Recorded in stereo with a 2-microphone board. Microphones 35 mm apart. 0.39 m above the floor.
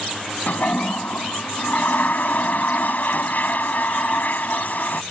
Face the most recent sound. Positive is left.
turn(degrees=60)  # may be behind; listen again after turning